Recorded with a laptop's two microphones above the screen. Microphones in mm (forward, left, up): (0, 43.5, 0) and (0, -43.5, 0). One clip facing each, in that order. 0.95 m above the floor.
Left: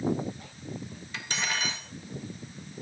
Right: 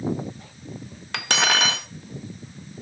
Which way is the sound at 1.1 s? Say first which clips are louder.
Right 10 dB; 65° right (ahead or behind).